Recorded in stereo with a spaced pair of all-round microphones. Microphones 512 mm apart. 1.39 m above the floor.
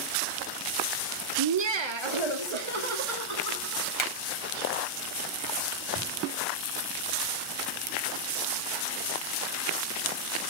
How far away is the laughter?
About 0.5 m.